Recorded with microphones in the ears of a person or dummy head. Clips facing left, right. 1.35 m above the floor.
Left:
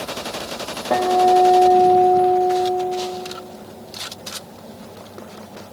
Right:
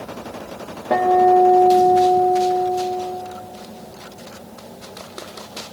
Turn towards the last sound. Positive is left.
turn(degrees=5)  # may be behind; listen again after turning